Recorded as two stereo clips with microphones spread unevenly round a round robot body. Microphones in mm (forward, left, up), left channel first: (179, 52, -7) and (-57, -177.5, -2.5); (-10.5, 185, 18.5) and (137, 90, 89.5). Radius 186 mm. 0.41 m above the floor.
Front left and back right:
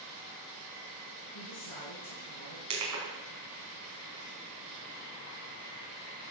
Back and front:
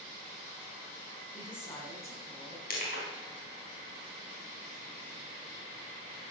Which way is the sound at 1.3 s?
75° left.